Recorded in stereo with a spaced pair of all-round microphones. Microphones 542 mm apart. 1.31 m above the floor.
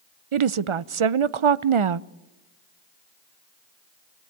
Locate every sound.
0.3 s a woman speaking: 65° right (ahead or behind), 0.6 m